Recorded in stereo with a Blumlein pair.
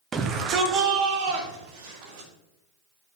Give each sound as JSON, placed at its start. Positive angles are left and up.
{"t": 0.1, "sound": "a shout", "azimuth_deg": -20, "distance_m": 1.1}